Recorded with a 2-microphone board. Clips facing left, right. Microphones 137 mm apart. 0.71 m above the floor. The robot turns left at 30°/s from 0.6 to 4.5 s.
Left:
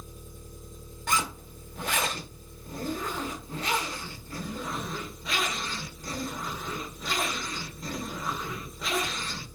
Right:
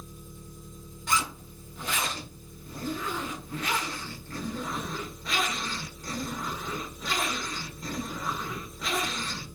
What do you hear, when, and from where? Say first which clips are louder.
0.0 s an engine running: right 1 dB; 110° left, 1.1 m; by 9.6 s 5° right, 1.1 m
1.1 s a zipper: even; 110° left, 0.6 m; by 9.5 s 5° left, 0.6 m